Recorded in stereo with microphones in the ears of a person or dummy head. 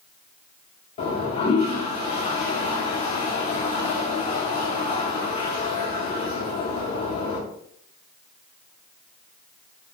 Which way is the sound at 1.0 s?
35° left (ahead or behind).